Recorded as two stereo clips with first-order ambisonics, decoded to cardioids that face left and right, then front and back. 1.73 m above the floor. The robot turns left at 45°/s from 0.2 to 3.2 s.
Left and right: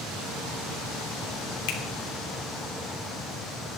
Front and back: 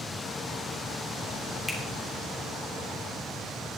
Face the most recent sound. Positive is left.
turn(degrees=10)